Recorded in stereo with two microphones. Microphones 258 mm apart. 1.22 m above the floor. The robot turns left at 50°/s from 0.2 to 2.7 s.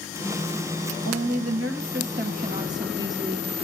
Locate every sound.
1.1 s a woman speaking: 85° right, 2.0 m; by 3.5 s 165° right, 2.0 m